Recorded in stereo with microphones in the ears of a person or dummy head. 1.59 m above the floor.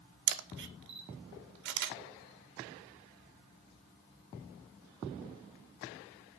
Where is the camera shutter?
55° right (ahead or behind), 0.6 m.